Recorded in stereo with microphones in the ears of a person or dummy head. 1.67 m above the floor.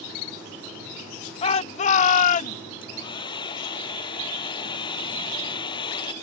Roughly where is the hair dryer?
Left.